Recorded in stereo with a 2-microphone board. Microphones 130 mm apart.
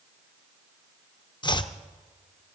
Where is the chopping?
35° left (ahead or behind), 0.6 m.